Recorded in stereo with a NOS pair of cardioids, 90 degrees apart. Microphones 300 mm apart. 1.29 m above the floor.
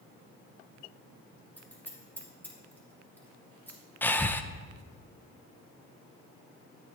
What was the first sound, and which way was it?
Scissors, 5° left.